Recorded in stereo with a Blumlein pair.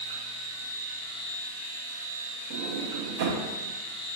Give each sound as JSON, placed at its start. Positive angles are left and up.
{"t": 0.0, "sound": "a machine running", "azimuth_deg": -70, "distance_m": 1.2}
{"t": 2.5, "sound": "a sliding door", "azimuth_deg": -50, "distance_m": 0.5}